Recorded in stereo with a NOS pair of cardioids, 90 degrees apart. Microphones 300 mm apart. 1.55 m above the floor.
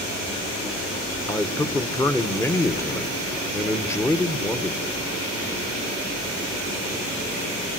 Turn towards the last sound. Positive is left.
turn(degrees=10)